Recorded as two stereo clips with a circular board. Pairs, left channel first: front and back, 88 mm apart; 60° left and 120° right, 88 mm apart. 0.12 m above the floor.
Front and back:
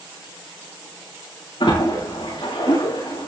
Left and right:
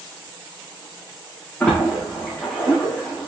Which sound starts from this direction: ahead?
A splash, at 1.6 s.